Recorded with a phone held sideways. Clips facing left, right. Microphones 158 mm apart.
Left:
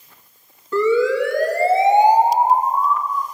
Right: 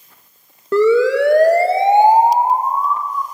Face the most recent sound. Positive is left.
turn(degrees=-30)  # may be behind; listen again after turning